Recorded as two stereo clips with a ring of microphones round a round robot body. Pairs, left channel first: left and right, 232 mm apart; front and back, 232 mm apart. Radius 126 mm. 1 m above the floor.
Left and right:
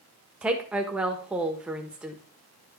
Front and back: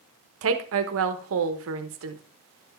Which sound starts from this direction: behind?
A woman speaking, at 0.4 s.